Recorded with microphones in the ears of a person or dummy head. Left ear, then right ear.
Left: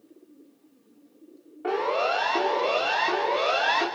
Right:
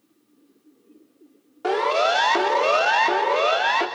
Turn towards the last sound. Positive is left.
turn(degrees=-15)  # may be behind; listen again after turning